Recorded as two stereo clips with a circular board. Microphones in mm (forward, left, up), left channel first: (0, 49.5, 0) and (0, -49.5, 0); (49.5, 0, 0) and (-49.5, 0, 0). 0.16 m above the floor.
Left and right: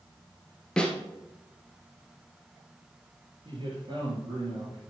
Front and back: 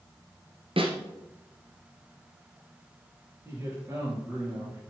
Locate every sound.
0.8 s a snare drum: 170° left, 1.6 m
3.5 s a man speaking: 120° right, 4 m